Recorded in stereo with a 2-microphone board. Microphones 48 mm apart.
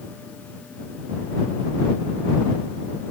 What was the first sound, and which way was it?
Only background noise.